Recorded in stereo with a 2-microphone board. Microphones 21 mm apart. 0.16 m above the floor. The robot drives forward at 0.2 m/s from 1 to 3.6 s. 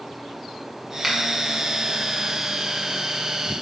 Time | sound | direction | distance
1.0 | a finger snap | 5° right (ahead or behind) | 1.0 m